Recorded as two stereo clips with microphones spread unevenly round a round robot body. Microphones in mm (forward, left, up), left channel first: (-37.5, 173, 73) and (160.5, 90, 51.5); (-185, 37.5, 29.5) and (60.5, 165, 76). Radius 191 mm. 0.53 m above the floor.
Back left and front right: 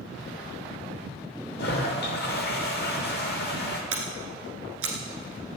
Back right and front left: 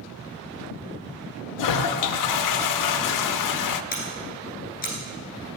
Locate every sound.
1.6 s a toilet flushing: 145° right, 0.6 m
3.9 s scissors: 80° right, 1.2 m